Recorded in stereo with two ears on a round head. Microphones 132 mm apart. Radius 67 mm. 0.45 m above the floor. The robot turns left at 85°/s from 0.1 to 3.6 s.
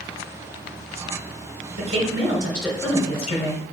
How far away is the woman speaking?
About 2.5 m.